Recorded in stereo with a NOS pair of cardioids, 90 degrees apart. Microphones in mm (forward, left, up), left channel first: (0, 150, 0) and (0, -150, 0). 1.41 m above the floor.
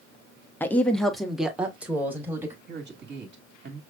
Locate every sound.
0.6 s a woman speaking: 5° left, 0.9 m; by 2.6 s 5° right, 1.8 m
2.7 s a man speaking: 30° right, 1.9 m